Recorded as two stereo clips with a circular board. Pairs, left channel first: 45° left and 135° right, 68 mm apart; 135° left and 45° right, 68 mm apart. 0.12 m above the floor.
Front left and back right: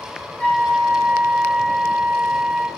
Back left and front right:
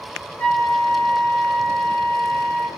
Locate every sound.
0.4 s a flute: 95° left, 1.7 m